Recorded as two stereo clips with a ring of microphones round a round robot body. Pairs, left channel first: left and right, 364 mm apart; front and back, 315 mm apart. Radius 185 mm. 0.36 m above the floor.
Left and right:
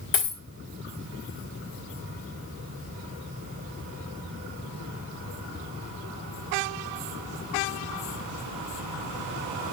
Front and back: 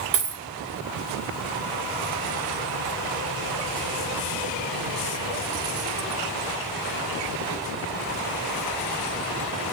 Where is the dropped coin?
145° left, 3 m.